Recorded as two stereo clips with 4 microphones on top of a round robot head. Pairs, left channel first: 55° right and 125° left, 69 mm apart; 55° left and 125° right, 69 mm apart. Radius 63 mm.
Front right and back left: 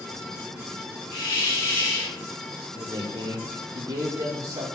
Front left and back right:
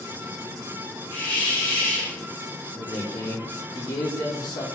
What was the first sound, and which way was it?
A hiss, 10° right.